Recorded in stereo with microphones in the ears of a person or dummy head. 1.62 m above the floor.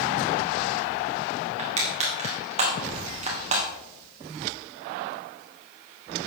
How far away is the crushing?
About 2 m.